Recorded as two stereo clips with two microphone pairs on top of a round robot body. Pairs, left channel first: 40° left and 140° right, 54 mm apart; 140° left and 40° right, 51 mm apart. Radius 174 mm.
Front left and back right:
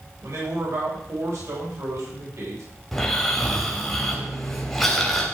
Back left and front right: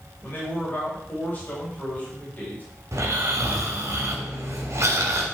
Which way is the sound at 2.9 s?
50° right.